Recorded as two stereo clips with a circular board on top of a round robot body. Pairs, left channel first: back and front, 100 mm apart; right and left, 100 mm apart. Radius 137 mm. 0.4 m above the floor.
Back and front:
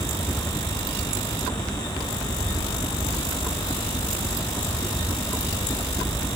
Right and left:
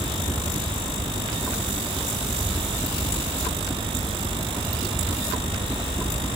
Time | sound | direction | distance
0.0 | a helicopter | 130° right | ?